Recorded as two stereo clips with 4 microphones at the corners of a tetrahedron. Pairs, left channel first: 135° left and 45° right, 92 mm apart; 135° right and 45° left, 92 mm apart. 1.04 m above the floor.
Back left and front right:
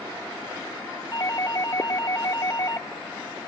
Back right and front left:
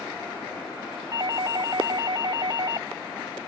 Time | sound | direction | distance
1.1 | a doorbell | 90° left | ?